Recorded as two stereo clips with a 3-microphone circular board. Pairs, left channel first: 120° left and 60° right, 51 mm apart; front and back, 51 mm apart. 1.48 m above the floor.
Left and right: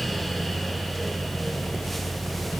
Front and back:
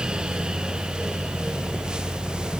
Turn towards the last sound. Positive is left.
No sound to turn to.